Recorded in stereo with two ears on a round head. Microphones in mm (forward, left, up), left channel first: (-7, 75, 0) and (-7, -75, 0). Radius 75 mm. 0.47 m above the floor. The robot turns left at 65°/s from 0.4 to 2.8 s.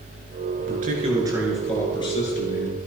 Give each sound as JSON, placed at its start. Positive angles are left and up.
{"t": 0.6, "sound": "a man speaking", "azimuth_deg": -115, "distance_m": 8.0}